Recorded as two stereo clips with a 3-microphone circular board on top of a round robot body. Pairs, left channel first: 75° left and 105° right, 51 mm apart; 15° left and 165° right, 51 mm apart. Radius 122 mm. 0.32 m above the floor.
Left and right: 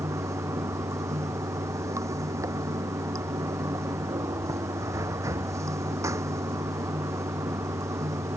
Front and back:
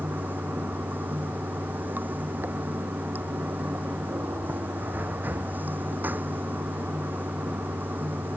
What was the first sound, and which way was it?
Running water, 110° right.